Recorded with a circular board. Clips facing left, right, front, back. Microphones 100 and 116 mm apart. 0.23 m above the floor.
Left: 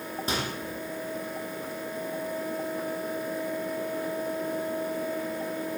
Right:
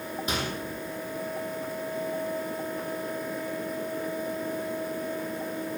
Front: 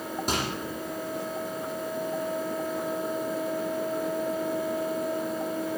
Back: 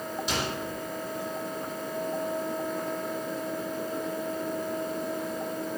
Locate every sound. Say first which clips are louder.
0.3 s a microwave: even, front 2 dB; 35° left, 6 m